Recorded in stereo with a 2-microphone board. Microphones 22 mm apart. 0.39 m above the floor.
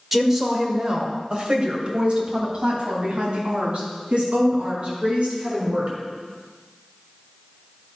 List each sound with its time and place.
0.1 s a woman speaking: 10° right (ahead or behind), 1.4 m; by 5.9 s 60° right (ahead or behind), 5.5 m